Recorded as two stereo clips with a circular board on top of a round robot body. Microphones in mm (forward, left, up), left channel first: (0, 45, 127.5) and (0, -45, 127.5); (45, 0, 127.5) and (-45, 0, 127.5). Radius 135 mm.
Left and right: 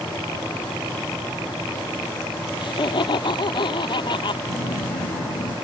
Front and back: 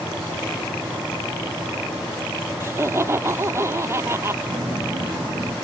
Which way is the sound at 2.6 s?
120° left.